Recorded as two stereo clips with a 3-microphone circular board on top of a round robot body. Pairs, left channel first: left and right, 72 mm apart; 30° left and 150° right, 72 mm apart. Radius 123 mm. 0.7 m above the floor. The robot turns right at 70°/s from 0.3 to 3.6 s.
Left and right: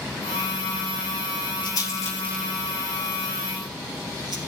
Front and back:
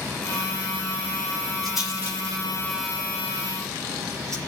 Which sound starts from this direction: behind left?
A rattle, at 1.6 s.